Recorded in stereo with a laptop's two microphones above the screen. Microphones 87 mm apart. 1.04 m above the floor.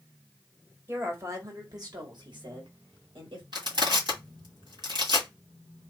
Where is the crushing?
60° right (ahead or behind), 1.7 m.